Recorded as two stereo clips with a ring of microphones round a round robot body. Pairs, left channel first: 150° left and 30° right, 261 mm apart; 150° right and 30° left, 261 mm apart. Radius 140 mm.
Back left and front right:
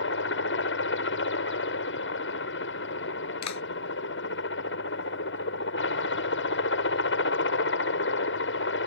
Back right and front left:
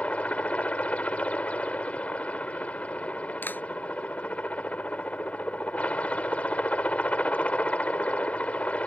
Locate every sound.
0.0 s a helicopter: 125° left
3.4 s a clap: 125° left